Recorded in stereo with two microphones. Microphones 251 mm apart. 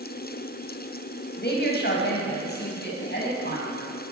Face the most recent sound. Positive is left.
turn(degrees=45)  # may be behind; listen again after turning